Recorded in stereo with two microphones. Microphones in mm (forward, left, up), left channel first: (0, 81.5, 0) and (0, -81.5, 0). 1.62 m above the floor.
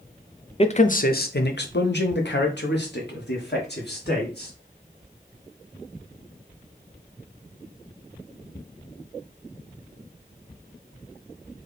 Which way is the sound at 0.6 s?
35° left (ahead or behind).